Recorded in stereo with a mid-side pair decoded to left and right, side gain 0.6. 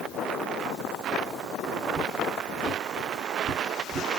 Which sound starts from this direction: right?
Footsteps, at 1.9 s.